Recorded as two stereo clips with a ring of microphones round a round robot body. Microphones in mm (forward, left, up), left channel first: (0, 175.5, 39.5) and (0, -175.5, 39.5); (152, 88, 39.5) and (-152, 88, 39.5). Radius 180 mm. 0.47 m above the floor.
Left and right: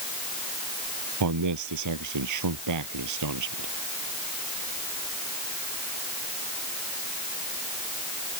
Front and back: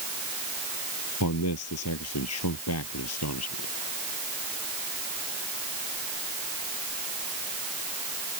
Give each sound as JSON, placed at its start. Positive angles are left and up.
{"t": 1.2, "sound": "a man speaking", "azimuth_deg": -50}